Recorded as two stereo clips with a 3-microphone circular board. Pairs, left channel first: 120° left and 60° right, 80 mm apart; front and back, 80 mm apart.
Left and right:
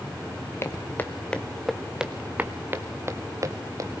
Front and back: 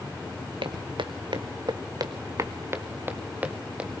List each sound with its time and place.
0.6 s footsteps: 175° left, 1.7 m; by 4.0 s 100° right, 2.5 m